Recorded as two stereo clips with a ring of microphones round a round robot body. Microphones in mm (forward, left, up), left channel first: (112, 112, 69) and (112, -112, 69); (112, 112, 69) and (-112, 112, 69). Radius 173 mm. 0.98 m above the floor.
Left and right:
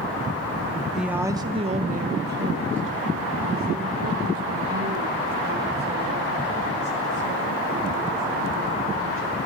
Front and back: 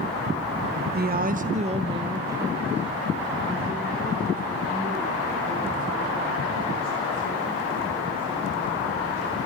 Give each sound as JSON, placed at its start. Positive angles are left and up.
{"t": 0.9, "sound": "a woman speaking", "azimuth_deg": 180, "distance_m": 0.8}